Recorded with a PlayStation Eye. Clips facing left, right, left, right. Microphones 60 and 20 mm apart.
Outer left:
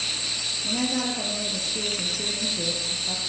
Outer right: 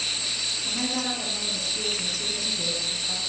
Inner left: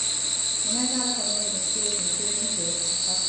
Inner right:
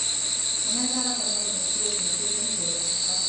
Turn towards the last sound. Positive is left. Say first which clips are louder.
# outer left 3 dB, inner left 1 dB
turn(degrees=75)  # may be behind; listen again after turning